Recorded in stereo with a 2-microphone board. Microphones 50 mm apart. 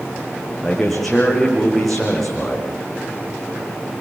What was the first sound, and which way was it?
A man speaking, centre (ahead or behind).